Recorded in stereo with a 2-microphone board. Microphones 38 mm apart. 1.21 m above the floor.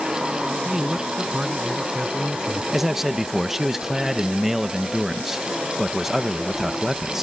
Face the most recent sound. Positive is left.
turn(degrees=-10)  # may be behind; listen again after turning